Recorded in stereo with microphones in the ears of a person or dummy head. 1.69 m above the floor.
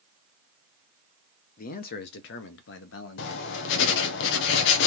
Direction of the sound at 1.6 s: 50° left (ahead or behind).